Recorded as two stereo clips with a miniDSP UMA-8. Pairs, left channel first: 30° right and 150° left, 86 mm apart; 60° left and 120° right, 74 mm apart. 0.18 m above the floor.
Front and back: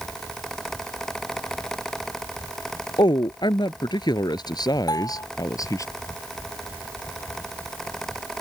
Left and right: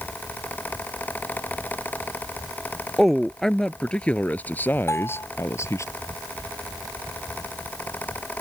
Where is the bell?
10° left.